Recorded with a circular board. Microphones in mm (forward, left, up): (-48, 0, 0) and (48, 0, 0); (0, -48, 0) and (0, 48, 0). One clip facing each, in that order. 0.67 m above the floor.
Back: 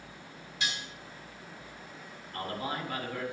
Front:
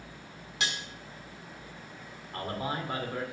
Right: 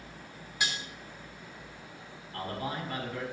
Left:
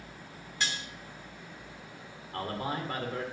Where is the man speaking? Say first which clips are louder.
Front 1 dB, left 2 dB; 55° left, 2 m.